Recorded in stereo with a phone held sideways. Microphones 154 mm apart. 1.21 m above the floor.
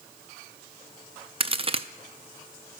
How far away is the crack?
About 0.5 m.